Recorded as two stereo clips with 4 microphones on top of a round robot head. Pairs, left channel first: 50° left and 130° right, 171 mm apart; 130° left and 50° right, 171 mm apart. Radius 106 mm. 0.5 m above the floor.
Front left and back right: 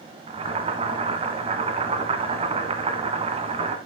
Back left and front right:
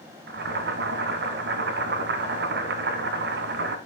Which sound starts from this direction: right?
Boiling, at 0.3 s.